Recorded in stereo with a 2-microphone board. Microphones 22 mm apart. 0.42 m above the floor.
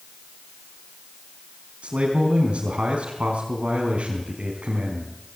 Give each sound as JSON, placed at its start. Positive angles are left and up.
{"t": 1.8, "sound": "a man speaking", "side_deg": -75, "distance_m": 4.5}